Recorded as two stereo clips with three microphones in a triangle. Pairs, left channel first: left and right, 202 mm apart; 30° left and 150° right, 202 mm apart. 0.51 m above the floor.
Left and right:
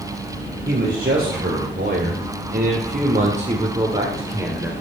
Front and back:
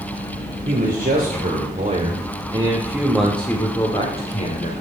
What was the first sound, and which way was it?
A man speaking, 125° right.